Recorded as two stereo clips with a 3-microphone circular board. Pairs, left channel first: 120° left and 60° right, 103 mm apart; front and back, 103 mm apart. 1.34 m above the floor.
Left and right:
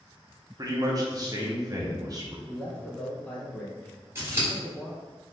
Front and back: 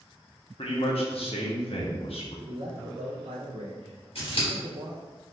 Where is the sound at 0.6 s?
5° right, 1.1 m.